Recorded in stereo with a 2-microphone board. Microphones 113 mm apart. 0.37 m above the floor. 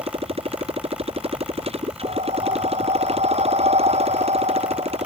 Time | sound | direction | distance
0.0 | a motorcycle | 60° right (ahead or behind) | ?
2.0 | breathing | 70° right (ahead or behind) | ?